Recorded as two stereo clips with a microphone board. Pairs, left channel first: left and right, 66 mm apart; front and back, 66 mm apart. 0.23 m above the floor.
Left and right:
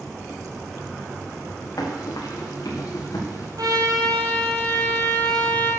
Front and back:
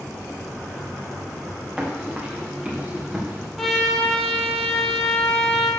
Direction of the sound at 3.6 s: 85° right.